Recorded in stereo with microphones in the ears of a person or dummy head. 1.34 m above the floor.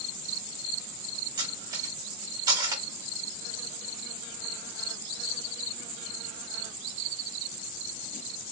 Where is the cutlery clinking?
20° right (ahead or behind), 1.9 m.